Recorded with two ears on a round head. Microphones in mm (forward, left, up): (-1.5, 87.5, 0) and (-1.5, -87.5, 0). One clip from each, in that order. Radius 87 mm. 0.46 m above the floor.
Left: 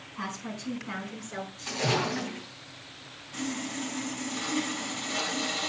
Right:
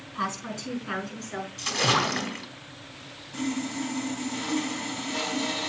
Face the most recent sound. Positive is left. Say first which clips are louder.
# right 3 dB
turn(degrees=35)  # may be behind; listen again after turning